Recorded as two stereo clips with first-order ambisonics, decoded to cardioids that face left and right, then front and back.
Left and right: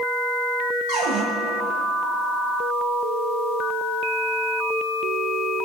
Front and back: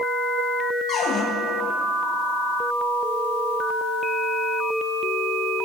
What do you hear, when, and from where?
0.9 s a cupboard door: 60° right, 1.6 m